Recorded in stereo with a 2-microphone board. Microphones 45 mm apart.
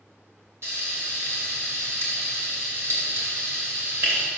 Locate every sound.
0.6 s frying: 70° right (ahead or behind), 2.5 m